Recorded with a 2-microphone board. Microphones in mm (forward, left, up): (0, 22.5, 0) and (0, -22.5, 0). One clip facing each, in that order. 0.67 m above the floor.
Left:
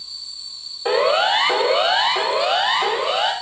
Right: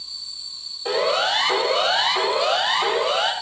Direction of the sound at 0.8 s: 30° left (ahead or behind).